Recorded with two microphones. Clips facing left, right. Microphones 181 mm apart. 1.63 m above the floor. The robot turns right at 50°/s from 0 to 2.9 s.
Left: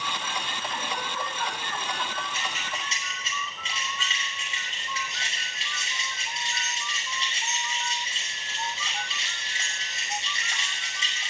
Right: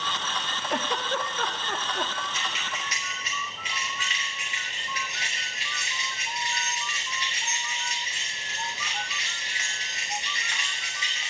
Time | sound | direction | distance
0.7 | a giggle | 70° right (ahead or behind) | 0.7 m
2.3 | keys jangling | 55° left (ahead or behind) | 6 m